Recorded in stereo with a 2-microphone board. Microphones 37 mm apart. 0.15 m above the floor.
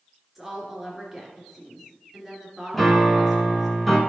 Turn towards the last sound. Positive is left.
turn(degrees=0)  # may be behind; listen again after turning